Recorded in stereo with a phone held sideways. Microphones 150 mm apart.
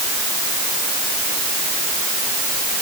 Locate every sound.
Only background noise.